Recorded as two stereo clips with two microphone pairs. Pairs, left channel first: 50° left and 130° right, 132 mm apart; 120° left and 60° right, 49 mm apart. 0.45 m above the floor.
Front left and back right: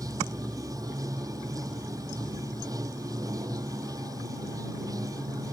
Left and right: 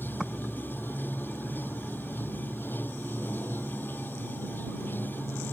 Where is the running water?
165° left.